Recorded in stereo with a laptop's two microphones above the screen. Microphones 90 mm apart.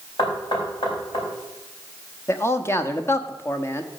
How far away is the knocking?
About 5 m.